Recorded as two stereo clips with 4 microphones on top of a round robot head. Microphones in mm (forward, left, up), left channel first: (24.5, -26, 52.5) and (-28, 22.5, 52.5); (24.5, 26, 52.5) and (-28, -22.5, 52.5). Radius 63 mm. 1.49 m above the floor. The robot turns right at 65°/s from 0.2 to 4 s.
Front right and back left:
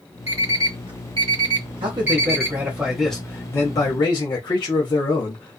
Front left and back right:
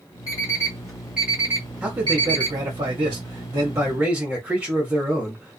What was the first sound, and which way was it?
An alarm clock, 85° left.